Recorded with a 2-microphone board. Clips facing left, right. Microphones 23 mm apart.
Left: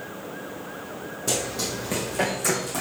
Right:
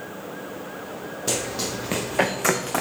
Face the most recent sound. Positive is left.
turn(degrees=-55)  # may be behind; listen again after turning